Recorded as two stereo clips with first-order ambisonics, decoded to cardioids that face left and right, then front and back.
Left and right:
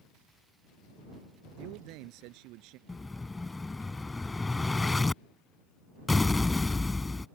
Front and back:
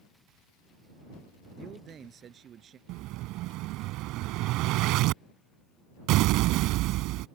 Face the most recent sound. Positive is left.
turn(degrees=170)